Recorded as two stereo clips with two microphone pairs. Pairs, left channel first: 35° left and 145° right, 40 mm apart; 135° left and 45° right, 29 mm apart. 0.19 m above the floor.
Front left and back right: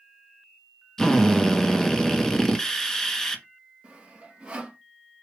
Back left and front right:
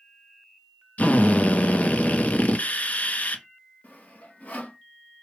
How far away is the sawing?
About 1.3 m.